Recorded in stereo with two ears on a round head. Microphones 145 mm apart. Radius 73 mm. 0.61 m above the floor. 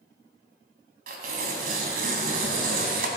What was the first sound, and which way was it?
Tearing paper, 60° right (ahead or behind).